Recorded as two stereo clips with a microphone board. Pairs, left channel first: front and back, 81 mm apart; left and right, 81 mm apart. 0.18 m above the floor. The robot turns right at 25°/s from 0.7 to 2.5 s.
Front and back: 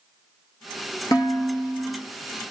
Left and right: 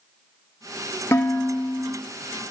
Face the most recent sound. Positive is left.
turn(degrees=65)